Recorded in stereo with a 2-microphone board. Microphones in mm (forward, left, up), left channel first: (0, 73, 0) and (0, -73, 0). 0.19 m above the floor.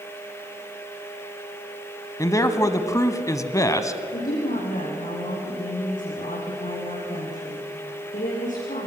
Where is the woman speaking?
65° left (ahead or behind), 9.5 m.